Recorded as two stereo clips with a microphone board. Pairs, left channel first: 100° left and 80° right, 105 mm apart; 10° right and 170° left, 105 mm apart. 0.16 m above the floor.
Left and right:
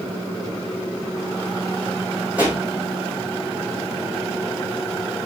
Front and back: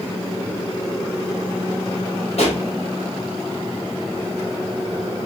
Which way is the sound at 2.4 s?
Straight ahead.